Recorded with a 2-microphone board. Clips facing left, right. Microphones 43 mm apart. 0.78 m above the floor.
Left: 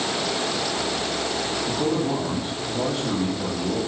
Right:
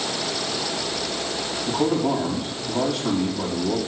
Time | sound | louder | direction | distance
1.7 | a man speaking | right 4 dB | 80° right | 6.5 m